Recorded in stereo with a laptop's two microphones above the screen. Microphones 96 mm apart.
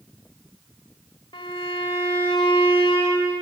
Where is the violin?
60° left (ahead or behind), 1.5 m.